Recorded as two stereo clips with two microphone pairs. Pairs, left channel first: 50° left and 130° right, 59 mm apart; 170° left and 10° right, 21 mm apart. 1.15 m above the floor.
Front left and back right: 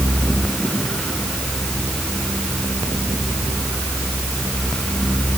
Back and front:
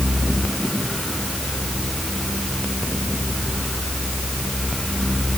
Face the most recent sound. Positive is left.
No sound to turn to.